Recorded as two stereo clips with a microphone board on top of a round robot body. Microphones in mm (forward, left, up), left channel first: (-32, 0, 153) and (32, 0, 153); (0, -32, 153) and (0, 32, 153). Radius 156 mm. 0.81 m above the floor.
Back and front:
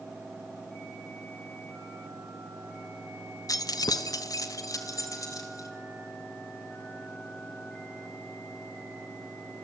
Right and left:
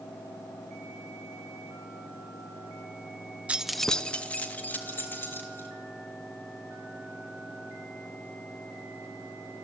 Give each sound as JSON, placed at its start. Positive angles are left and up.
{"t": 3.5, "sound": "keys jangling", "azimuth_deg": 160, "distance_m": 0.7}